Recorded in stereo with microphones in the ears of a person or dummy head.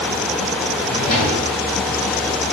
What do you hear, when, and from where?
0.8 s a drawer: 40° left (ahead or behind), 2.5 m